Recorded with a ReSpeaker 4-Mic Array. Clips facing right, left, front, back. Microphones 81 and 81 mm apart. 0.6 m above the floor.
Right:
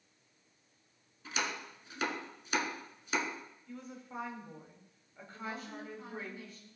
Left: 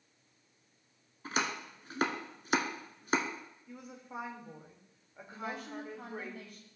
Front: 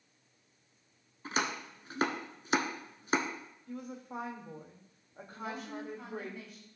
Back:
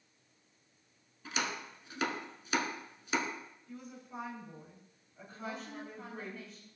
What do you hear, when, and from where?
1.2 s chopping: 45° left, 1.2 m
3.7 s a woman speaking: 15° left, 1.8 m
5.3 s a woman speaking: 85° left, 3.5 m